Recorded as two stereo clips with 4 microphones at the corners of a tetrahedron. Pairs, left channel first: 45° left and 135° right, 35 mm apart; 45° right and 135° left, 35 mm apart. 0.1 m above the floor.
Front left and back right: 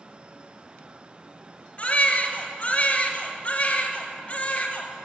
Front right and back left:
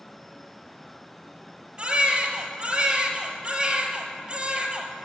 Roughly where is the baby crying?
Left.